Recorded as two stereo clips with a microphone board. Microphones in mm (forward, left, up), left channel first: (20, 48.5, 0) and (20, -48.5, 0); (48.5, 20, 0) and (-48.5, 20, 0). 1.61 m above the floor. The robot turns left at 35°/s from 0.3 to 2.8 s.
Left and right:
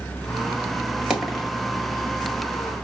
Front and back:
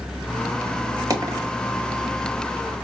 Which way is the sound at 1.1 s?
170° right.